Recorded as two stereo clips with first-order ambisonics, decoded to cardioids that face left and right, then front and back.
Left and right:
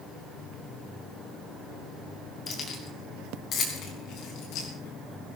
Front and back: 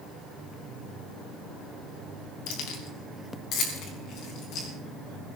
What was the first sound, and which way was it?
Keys jangling, 25° left.